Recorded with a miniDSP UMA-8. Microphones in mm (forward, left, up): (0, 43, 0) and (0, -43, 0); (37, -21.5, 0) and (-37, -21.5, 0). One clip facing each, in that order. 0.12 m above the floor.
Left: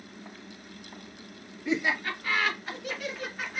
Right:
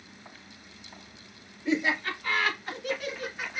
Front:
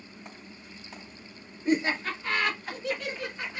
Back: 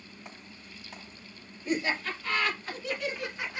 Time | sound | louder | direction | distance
1.6 | laughter | right 1 dB, front 4 dB | 20° left | 1.6 m